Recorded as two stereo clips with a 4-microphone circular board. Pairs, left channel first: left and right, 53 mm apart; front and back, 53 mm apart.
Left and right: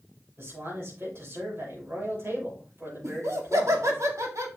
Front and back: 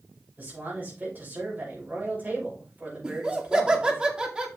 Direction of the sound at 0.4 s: 130° right.